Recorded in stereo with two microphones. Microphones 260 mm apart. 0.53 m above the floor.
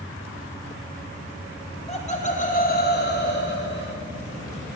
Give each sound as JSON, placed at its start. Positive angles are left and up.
{"t": 1.6, "sound": "laughter", "side_deg": 20, "distance_m": 2.0}